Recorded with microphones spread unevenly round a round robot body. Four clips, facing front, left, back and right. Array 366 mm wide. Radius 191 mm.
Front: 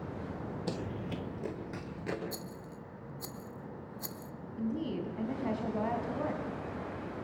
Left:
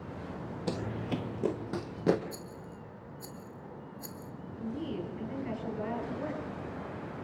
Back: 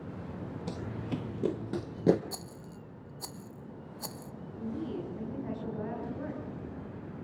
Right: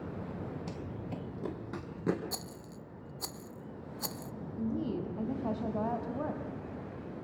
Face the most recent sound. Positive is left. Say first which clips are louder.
# right 2 dB, front 2 dB
turn(degrees=-45)